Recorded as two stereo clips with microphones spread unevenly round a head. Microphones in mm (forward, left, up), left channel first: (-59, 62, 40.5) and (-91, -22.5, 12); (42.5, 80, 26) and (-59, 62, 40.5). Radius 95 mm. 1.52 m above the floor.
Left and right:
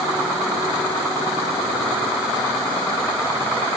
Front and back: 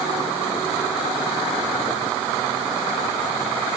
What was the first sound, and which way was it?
Only background noise.